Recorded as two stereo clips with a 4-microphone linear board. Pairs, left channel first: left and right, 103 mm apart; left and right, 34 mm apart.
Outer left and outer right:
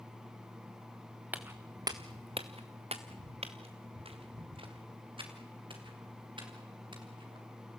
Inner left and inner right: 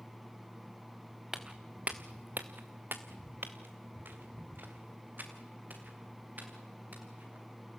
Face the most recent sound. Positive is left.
turn(degrees=-50)  # may be behind; listen again after turning